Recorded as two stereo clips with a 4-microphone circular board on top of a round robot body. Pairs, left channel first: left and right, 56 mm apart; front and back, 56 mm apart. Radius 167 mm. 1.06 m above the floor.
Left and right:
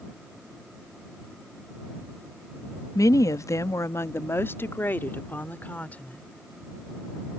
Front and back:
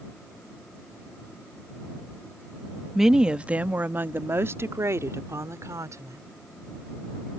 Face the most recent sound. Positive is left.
turn(degrees=155)